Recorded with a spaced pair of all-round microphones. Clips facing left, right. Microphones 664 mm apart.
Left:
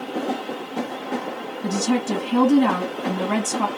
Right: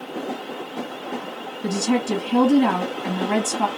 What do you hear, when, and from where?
1.6 s a woman speaking: 10° left (ahead or behind), 1.3 m